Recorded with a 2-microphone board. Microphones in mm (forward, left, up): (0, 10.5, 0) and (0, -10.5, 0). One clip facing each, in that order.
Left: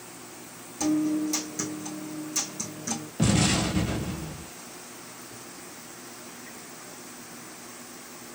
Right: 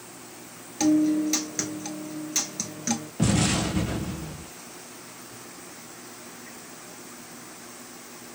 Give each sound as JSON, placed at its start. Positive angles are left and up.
{"t": 0.8, "sound": "a guitar", "side_deg": -55, "distance_m": 0.8}
{"t": 3.2, "sound": "an explosion", "side_deg": 20, "distance_m": 1.1}